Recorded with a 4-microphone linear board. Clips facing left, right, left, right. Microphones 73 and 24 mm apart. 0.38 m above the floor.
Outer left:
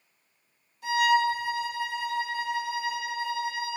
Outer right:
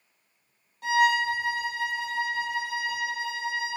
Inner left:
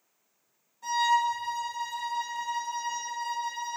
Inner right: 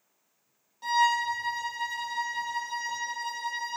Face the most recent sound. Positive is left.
turn(degrees=-55)  # may be behind; listen again after turning